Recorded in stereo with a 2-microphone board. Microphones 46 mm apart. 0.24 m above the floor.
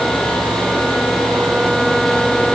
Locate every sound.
Only background noise.